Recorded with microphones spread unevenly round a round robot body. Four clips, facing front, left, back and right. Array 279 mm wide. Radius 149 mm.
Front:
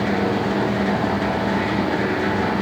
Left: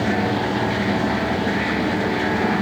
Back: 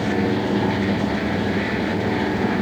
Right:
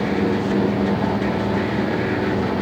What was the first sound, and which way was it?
Only background noise.